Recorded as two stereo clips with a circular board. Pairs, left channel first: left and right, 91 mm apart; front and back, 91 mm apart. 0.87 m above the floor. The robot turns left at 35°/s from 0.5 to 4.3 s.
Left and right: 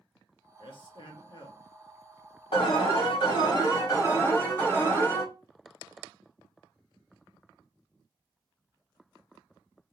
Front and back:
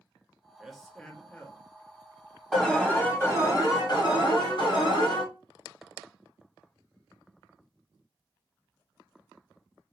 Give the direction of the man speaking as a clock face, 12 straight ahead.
9 o'clock.